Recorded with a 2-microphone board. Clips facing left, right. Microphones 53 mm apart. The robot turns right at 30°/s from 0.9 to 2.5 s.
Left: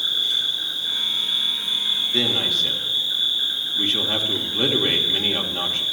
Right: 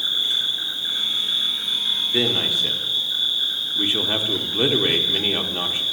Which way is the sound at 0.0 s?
30° right.